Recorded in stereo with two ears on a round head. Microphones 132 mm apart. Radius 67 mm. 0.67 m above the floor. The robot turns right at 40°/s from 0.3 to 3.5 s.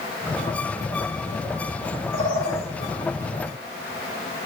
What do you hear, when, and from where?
2.1 s a bird: 35° left (ahead or behind), 2 m; by 2.7 s 20° left (ahead or behind), 2 m